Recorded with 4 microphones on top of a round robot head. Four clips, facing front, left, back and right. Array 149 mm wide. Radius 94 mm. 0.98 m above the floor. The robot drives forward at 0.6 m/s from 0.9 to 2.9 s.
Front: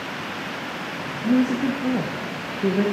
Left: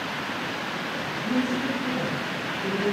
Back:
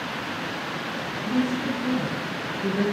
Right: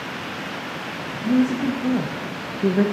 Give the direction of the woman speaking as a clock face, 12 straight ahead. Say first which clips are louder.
Right 7 dB, front 5 dB; 1 o'clock.